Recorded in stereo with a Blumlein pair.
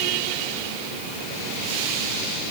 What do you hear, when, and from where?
Only background noise.